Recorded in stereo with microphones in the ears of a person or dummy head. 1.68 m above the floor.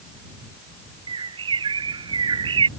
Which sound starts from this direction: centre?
A bird, at 1.1 s.